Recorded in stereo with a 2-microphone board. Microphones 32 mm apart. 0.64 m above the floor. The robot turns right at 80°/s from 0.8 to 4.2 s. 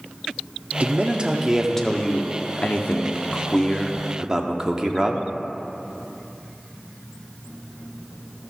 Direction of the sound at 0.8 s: 65° right.